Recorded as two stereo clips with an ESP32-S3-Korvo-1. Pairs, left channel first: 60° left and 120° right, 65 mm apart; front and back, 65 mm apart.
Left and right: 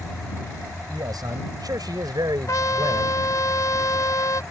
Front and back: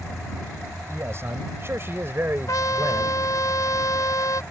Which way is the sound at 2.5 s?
30° left.